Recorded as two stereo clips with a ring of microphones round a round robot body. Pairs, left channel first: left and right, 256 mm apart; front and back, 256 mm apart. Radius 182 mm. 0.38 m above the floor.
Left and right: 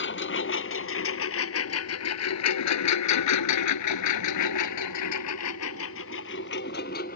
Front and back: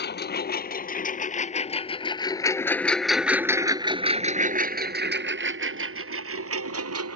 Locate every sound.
0.0 s a lawn mower: 50° left; by 7.2 s 160° left